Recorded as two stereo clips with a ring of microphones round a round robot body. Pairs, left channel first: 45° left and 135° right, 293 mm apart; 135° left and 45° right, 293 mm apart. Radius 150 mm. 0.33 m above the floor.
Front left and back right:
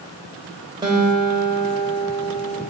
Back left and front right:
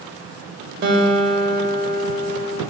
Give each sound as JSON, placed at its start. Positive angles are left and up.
{"t": 0.8, "sound": "a guitar", "azimuth_deg": -70, "distance_m": 1.7}